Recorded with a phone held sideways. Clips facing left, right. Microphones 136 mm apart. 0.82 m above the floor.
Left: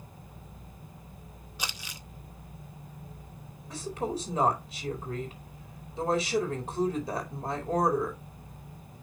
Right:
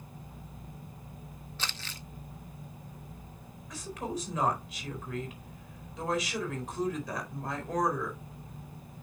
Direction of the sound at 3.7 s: 30° left (ahead or behind).